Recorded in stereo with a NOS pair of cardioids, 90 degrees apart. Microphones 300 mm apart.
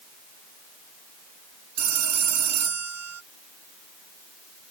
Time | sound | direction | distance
1.8 | a phone ringing | 60° right | ?